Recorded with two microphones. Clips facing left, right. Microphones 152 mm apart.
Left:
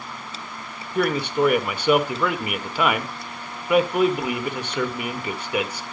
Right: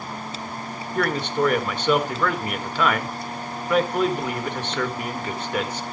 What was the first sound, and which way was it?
A man speaking, 10° left (ahead or behind).